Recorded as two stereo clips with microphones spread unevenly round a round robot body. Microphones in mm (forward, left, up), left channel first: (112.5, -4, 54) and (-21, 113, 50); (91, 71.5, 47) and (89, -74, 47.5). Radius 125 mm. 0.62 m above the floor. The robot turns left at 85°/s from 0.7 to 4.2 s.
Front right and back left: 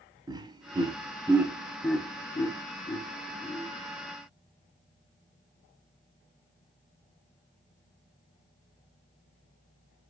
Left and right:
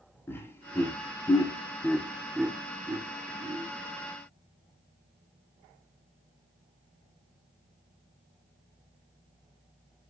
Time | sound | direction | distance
0.3 | laughter | 140° left | 0.6 m